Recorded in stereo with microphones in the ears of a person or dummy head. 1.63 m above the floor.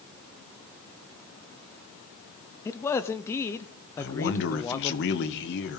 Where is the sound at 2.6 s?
15° left (ahead or behind), 0.6 m.